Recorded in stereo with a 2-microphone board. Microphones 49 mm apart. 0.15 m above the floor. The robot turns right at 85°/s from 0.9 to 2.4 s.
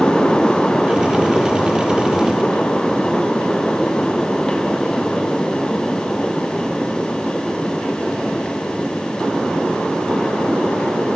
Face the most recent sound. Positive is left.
No sound to turn to.